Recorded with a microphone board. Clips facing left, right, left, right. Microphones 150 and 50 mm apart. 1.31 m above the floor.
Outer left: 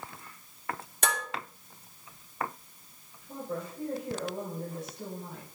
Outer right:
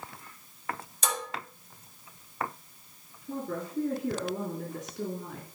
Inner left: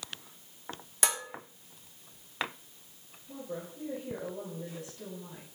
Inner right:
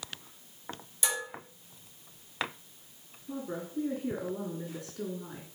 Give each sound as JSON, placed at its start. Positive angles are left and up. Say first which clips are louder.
{"t": 1.0, "sound": "dishes clattering", "louder": "outer left 1 dB, inner left 1 dB", "side_deg": 55, "distance_m": 2.5}
{"t": 3.3, "sound": "a woman speaking", "louder": "outer right 3 dB, inner right 3 dB", "side_deg": -70, "distance_m": 3.0}